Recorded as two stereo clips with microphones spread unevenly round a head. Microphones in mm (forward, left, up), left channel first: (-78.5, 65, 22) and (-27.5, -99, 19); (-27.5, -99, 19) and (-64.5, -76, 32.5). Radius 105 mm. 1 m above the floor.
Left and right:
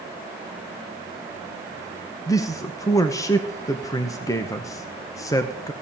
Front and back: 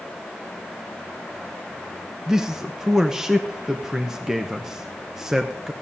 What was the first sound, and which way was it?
A man speaking, 50° left.